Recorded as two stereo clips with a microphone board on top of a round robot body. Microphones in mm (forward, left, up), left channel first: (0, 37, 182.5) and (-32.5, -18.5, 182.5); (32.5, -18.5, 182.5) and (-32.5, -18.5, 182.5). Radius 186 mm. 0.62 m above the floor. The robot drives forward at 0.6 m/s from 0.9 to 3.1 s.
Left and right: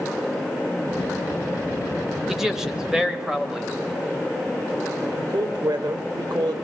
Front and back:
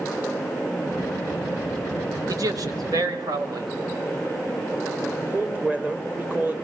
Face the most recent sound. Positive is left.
turn(degrees=-115)